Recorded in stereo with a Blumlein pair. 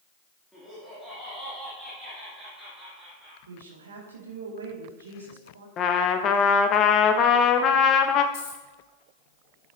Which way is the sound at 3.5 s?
70° right.